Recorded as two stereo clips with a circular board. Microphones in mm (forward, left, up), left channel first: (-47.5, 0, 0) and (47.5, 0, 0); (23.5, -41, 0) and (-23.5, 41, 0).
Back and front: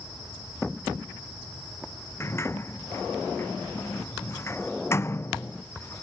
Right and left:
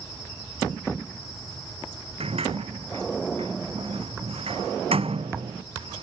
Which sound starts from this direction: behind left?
A sliding door, at 2.2 s.